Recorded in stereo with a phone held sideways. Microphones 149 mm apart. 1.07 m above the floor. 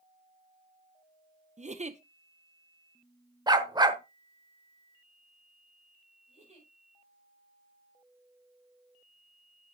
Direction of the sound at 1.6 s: 50° right (ahead or behind).